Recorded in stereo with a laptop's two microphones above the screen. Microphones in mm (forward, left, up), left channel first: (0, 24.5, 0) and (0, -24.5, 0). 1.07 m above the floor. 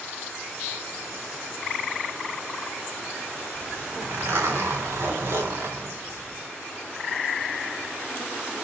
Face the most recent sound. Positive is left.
turn(degrees=-55)  # may be behind; listen again after turning